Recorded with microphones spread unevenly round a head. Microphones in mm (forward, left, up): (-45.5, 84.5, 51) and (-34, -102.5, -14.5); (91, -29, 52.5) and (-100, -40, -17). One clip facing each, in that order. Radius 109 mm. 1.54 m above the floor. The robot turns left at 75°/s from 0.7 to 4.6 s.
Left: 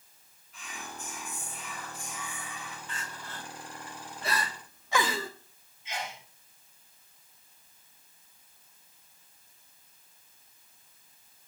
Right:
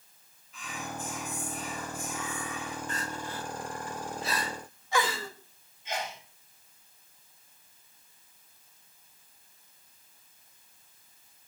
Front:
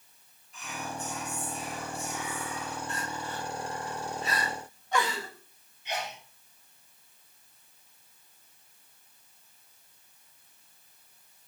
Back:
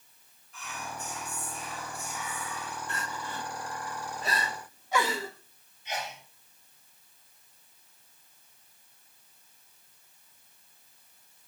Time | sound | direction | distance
0.5 | whispering | 70° right | 4 m
2.9 | crying | 135° right | 1.3 m
5.8 | a sneeze | 20° right | 3.5 m